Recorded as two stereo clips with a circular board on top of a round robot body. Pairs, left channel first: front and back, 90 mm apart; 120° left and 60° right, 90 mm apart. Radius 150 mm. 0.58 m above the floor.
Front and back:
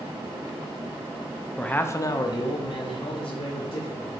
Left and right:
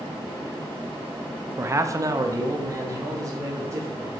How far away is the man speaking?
About 0.6 m.